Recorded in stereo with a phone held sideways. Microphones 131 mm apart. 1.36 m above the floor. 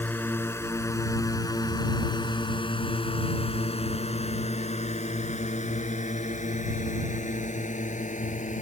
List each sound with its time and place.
0.0 s a drone: 15° left (ahead or behind); by 8.6 s 90° left